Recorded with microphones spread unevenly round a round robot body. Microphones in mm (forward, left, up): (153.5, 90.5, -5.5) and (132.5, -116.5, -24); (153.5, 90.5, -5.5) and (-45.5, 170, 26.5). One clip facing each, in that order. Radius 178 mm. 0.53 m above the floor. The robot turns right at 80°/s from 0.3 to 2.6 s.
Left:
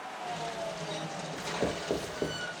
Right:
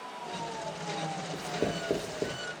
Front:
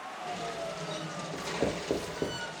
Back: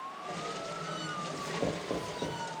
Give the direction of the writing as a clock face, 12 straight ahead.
3 o'clock.